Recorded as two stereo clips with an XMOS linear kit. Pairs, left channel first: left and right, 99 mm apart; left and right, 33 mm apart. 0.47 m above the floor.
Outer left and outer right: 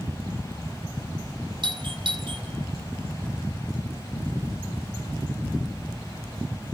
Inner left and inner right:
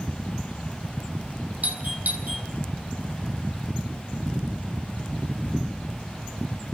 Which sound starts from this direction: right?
A doorbell, at 1.6 s.